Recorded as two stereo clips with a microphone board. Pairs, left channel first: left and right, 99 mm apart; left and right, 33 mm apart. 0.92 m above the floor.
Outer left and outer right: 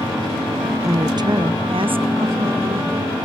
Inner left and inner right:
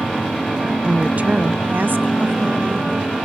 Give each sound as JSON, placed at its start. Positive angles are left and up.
{"t": 0.8, "sound": "a woman speaking", "side_deg": -25, "distance_m": 0.5}